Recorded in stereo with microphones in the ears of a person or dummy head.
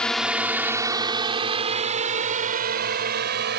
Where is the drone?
5° left (ahead or behind); by 3.6 s 50° right (ahead or behind).